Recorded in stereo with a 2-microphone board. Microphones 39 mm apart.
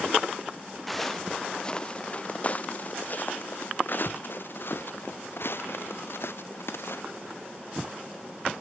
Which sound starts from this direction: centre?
Footsteps, at 0.9 s.